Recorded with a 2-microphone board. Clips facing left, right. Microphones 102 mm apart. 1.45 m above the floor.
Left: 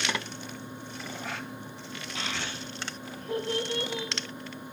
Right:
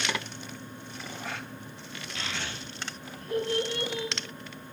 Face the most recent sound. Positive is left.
turn(degrees=25)  # may be behind; listen again after turning